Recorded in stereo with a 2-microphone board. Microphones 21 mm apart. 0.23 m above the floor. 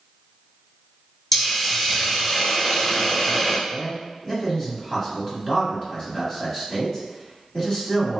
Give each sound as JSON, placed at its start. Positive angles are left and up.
{"t": 1.3, "sound": "a hiss", "side_deg": 20, "distance_m": 1.4}
{"t": 3.7, "sound": "a man speaking", "side_deg": 30, "distance_m": 1.3}